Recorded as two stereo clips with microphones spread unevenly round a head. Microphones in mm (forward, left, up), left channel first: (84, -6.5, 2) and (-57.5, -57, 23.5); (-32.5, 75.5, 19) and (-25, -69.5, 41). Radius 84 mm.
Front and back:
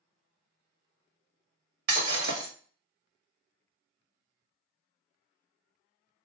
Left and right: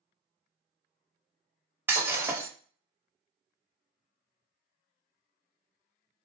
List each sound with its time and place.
1.9 s breaking glass: 160° right, 1.7 m